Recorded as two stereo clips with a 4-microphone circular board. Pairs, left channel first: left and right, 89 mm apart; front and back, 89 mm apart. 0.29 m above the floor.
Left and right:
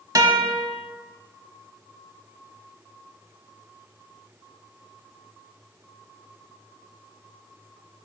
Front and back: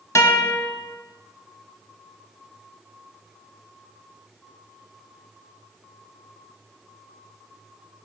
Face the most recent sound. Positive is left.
turn(degrees=-50)